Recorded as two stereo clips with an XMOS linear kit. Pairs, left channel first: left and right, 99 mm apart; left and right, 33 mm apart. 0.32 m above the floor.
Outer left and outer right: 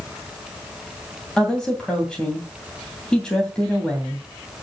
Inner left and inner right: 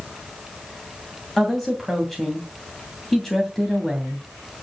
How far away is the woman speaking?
About 2.5 m.